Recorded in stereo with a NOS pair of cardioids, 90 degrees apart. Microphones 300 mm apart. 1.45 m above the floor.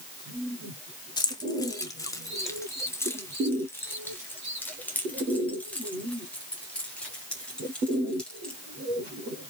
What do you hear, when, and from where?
1.2 s keys jangling: 15° left, 2 m; by 8.6 s 5° left, 5.5 m